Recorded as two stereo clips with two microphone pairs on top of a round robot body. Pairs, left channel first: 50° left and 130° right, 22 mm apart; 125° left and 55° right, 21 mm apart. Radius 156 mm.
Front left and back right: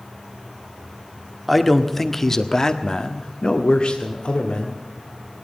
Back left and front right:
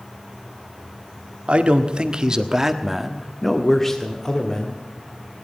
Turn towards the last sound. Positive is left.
turn(degrees=70)